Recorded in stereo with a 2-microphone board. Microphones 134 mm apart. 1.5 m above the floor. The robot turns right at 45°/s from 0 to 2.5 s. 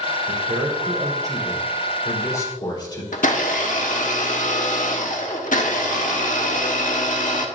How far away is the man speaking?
About 3.5 m.